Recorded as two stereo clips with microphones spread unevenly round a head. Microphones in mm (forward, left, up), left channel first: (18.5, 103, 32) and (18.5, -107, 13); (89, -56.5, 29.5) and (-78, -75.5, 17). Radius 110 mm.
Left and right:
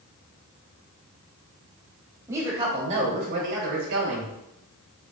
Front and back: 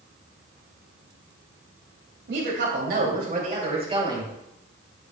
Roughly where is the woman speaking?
Behind.